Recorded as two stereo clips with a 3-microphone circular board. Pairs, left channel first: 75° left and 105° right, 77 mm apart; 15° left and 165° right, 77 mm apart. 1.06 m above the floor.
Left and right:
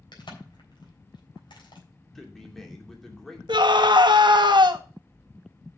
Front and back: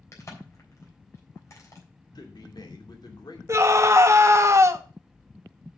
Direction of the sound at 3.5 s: 115° right.